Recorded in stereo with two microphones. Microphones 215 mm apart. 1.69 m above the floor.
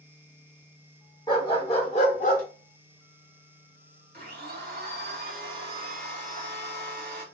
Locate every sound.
1.3 s a dog barking: 20° left (ahead or behind), 1.2 m; by 2.4 s 35° left (ahead or behind), 1.6 m
4.1 s a blender: 50° right (ahead or behind), 1.7 m